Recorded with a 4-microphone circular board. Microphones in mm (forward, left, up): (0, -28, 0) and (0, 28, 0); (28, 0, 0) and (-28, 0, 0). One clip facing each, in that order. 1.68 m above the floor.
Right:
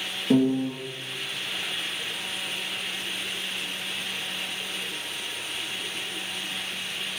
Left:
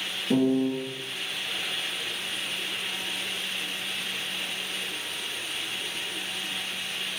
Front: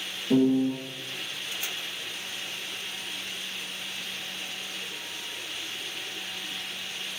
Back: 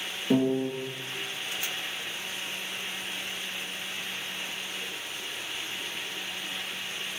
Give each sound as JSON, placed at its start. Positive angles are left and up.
{"t": 0.3, "sound": "a piano", "azimuth_deg": -140, "distance_m": 0.9}